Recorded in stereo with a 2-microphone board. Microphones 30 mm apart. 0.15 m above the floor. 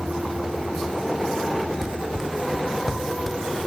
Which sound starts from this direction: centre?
Running footsteps, at 1.8 s.